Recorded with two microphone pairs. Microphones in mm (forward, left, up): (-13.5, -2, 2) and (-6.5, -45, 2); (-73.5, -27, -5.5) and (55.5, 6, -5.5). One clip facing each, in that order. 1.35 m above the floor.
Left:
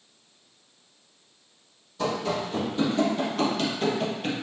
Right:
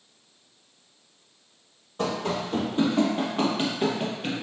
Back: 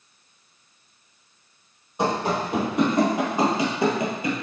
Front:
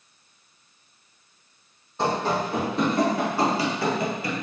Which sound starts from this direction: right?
Running footsteps, at 2.0 s.